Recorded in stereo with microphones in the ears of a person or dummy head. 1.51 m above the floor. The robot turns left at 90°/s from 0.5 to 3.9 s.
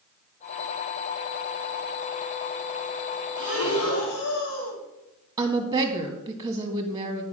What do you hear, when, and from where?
3.4 s breathing: 125° left, 2 m; by 4.8 s 80° left, 2 m
5.4 s a woman speaking: 15° right (ahead or behind), 1.7 m